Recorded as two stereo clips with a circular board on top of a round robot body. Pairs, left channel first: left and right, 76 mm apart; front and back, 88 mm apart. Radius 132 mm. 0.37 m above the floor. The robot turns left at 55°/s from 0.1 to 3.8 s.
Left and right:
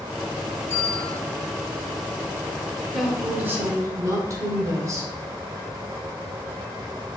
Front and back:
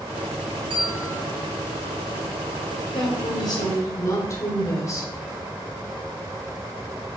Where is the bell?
150° left, 2 m; by 1.2 s 125° left, 2 m.